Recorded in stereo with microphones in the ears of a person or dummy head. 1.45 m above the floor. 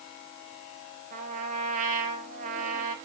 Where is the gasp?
I don't hear a gasp.